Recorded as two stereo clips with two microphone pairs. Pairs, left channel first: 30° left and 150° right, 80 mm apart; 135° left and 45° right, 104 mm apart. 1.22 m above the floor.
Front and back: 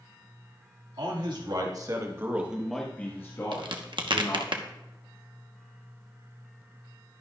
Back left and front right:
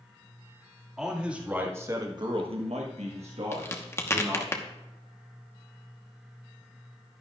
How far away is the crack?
About 1.1 m.